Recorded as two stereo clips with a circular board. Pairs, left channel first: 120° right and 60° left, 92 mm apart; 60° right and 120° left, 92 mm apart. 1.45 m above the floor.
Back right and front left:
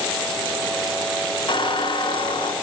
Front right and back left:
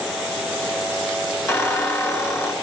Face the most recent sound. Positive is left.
turn(degrees=-120)